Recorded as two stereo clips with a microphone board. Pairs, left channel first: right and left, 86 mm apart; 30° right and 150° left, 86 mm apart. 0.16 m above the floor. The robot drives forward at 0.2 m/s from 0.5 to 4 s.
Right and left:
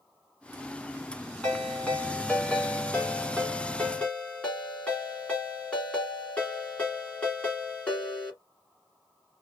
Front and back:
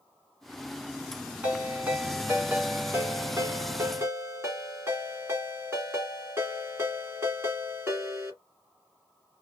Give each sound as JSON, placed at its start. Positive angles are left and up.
{"t": 1.4, "sound": "a ringtone", "azimuth_deg": -150, "distance_m": 1.2}